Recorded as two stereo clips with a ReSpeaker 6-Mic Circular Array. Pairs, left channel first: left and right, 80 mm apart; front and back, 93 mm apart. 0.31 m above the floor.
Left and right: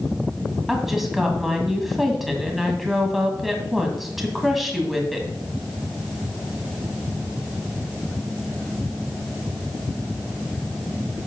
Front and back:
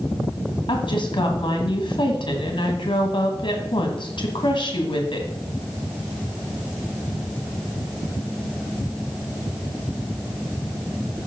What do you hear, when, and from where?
0.7 s a woman speaking: straight ahead, 1.9 m